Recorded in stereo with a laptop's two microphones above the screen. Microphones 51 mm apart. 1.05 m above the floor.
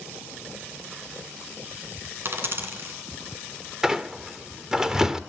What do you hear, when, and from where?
2.2 s a dropped coin: 50° right (ahead or behind), 2 m
3.8 s a squeak: 15° right (ahead or behind), 0.9 m